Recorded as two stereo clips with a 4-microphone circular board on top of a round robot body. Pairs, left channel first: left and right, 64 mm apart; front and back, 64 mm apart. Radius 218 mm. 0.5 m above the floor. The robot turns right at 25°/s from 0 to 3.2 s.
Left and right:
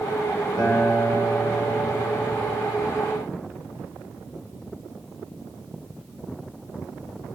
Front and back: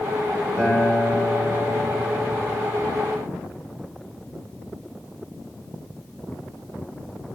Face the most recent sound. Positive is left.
turn(degrees=135)